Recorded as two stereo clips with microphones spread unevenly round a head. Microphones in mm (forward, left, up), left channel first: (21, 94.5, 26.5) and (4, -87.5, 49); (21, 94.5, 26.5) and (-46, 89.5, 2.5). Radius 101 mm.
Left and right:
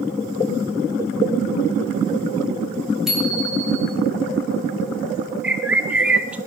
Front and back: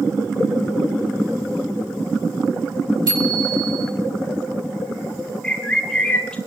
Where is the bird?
25° right, 1.1 m.